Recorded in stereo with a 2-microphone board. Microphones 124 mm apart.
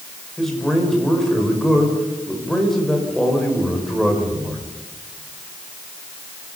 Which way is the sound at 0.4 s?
5° left (ahead or behind).